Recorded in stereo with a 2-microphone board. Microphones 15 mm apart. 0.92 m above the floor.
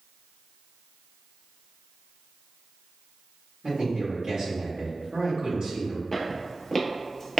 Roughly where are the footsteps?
Centre.